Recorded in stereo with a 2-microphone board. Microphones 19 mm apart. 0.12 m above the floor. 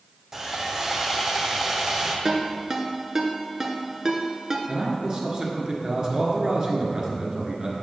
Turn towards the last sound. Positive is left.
turn(degrees=-30)  # may be behind; listen again after turning